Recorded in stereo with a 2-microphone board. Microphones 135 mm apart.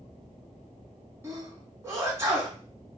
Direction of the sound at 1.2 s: 20° right (ahead or behind).